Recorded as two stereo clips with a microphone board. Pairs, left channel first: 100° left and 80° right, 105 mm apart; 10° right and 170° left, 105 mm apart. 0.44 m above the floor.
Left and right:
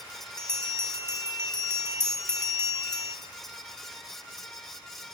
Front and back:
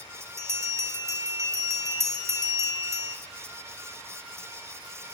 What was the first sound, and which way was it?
A bell, 135° right.